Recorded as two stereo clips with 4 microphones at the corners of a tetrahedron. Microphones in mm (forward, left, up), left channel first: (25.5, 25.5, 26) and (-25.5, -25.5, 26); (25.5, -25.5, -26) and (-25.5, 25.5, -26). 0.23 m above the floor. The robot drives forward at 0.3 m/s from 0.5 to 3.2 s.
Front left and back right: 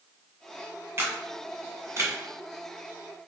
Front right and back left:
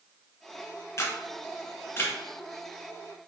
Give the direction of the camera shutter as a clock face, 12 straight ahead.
3 o'clock.